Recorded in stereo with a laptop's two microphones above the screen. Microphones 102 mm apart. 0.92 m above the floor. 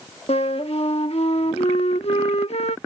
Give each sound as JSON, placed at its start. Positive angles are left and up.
{"t": 0.3, "sound": "a flute", "side_deg": 85}